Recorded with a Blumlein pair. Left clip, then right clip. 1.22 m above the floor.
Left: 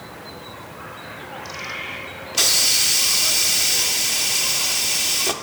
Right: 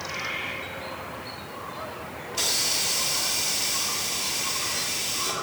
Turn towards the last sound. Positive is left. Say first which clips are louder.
# left 8 dB
turn(degrees=65)